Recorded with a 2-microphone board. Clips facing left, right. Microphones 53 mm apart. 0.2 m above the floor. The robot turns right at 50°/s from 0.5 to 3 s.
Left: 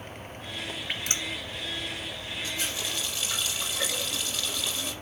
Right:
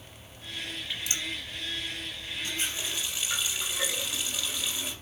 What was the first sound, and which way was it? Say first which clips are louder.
Dripping: left 2 dB; 50° left (ahead or behind).